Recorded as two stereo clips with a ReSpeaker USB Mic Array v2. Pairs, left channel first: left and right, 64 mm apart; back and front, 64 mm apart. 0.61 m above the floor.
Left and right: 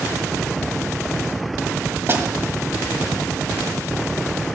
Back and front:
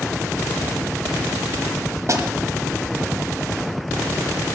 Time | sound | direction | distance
2.1 | a snare drum | 40° right | 1.4 m